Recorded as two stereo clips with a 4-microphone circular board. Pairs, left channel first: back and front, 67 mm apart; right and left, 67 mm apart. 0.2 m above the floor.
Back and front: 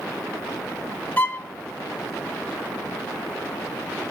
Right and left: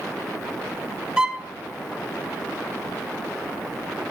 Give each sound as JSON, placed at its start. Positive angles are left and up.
{"t": 1.2, "sound": "a violin", "azimuth_deg": 155, "distance_m": 1.2}